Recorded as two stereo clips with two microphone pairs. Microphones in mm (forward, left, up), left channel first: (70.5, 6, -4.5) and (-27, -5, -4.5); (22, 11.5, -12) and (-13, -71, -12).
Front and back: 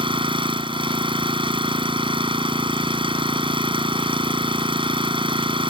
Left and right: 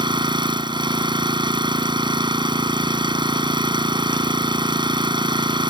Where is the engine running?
145° right.